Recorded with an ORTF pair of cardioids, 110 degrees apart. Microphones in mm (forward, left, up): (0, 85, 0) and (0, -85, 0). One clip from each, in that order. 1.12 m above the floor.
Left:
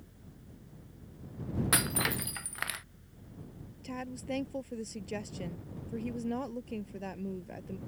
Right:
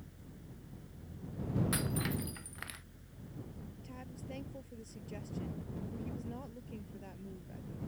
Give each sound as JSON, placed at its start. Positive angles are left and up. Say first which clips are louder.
{"t": 0.0, "sound": "a fan", "louder": "right 1 dB", "azimuth_deg": -5}
{"t": 1.7, "sound": "breaking glass", "louder": "left 7 dB", "azimuth_deg": 60}
{"t": 3.8, "sound": "a woman speaking", "louder": "left 12 dB", "azimuth_deg": 65}